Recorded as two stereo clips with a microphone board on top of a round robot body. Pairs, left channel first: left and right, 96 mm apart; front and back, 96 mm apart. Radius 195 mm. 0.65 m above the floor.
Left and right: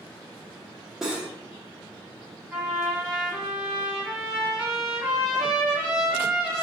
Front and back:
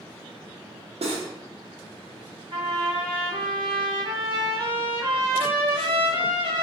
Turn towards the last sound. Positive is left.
turn(degrees=-170)